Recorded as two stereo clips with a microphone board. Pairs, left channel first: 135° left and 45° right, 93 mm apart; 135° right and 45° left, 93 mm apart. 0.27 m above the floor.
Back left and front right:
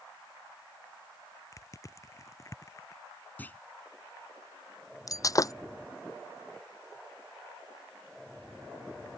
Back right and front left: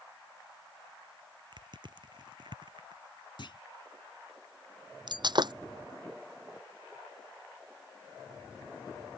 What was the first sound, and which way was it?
Crushing, 80° left.